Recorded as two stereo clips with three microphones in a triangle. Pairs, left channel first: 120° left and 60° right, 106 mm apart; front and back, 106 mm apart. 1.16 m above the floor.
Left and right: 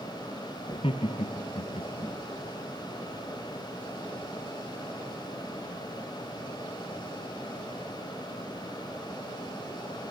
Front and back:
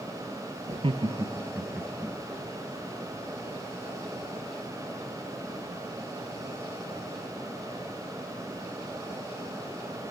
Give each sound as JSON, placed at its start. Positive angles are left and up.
{"t": 0.7, "sound": "laughter", "azimuth_deg": 160, "distance_m": 0.6}